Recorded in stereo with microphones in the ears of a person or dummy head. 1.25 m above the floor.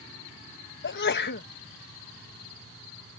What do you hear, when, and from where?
0.8 s a sneeze: 50° left (ahead or behind)